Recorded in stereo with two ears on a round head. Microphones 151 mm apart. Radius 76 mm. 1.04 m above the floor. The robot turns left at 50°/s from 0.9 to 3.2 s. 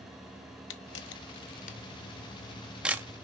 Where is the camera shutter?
80° left, 0.8 m; by 3.1 s 15° right (ahead or behind), 0.8 m.